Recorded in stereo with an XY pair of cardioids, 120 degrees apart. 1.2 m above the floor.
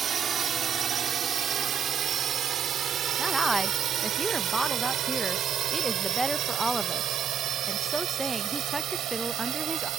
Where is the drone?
45° right; by 10.0 s 65° right.